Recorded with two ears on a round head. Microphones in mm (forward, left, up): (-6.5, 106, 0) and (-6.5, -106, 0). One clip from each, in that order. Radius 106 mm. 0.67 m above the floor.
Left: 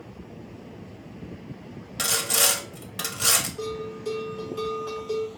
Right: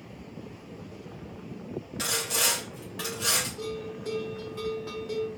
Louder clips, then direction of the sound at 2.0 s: Left 4 dB; 30° left (ahead or behind).